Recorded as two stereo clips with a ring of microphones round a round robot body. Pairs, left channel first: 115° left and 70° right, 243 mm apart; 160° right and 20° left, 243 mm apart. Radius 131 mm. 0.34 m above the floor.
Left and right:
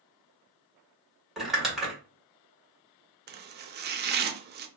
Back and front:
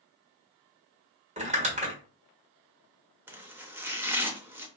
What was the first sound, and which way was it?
Crumpling, 20° left.